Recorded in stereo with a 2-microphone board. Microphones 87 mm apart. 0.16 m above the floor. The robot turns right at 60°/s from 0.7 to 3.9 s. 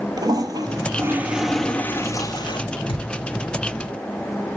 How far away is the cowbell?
I don't hear a cowbell.